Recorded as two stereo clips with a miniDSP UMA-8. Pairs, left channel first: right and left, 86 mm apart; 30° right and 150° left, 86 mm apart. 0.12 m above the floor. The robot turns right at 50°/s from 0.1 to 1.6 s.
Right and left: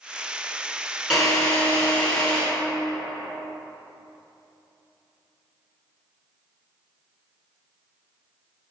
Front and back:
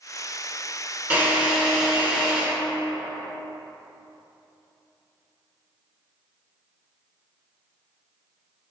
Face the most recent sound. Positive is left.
turn(degrees=-150)